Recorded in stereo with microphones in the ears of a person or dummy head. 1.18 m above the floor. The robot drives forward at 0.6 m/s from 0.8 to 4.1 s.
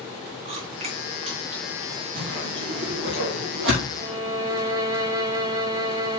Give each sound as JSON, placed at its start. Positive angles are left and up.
{"t": 0.5, "sound": "chewing", "side_deg": -40, "distance_m": 2.5}
{"t": 2.1, "sound": "a whoosh", "side_deg": -75, "distance_m": 5.5}
{"t": 4.0, "sound": "a violin", "side_deg": -20, "distance_m": 1.4}